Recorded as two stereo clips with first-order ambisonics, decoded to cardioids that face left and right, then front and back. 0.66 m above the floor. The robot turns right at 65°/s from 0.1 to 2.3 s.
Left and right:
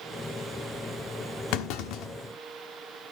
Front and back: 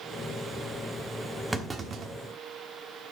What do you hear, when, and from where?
1.5 s a clunk: 95° left, 1.2 m; by 2.1 s 135° left, 1.2 m